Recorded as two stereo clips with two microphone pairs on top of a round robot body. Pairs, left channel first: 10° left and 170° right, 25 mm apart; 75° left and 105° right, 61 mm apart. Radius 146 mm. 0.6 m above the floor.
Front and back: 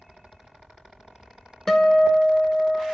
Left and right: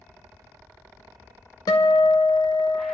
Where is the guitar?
80° left, 0.6 m.